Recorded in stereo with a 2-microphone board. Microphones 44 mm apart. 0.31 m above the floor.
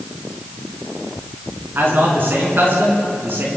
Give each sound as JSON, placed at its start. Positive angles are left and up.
{"t": 1.8, "sound": "a man speaking", "side_deg": -50, "distance_m": 4.0}